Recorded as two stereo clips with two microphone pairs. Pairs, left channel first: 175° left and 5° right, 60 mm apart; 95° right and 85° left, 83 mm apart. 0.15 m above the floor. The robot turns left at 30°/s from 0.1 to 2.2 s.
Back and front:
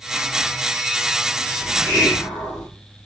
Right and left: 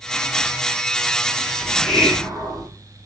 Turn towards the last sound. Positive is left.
turn(degrees=175)